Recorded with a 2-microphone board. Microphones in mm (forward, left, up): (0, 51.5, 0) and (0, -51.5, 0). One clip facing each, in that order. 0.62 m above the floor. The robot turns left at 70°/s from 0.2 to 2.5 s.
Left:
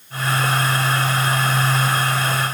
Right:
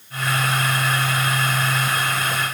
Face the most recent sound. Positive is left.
No sound to turn to.